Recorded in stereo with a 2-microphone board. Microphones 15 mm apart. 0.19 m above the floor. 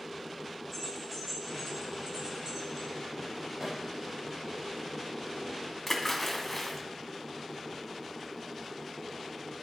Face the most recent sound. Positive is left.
turn(degrees=15)  # may be behind; listen again after turning